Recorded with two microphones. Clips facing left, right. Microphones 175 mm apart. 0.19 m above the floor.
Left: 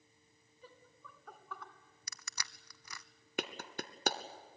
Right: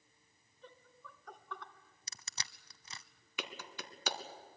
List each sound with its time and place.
0.6 s laughter: 5° left (ahead or behind), 2 m
2.1 s crushing: 25° right (ahead or behind), 0.7 m
3.4 s a clap: 50° left (ahead or behind), 1.3 m